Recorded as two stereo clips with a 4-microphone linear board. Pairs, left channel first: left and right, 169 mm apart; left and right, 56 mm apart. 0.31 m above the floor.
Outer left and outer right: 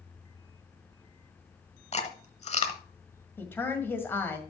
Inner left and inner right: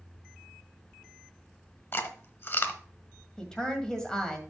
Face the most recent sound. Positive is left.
turn(degrees=10)  # may be behind; listen again after turning